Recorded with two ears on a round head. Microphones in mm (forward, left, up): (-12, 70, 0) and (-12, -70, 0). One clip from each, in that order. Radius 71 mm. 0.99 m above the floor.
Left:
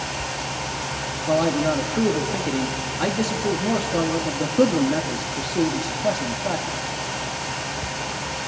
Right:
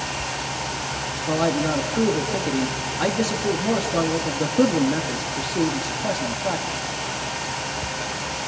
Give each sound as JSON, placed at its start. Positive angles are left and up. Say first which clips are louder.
{"t": 1.3, "sound": "a man speaking", "louder": "left 2 dB", "side_deg": -10, "distance_m": 2.0}